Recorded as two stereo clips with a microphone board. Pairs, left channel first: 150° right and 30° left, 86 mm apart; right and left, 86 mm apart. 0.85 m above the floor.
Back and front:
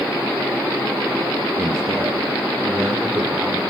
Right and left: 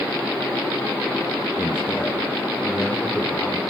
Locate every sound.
1.6 s a man speaking: 20° right, 1.0 m; by 3.6 s 25° right, 2.5 m